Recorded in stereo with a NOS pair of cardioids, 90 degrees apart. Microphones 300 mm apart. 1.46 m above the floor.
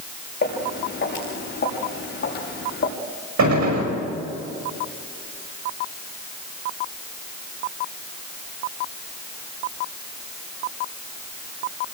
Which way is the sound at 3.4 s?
65° right.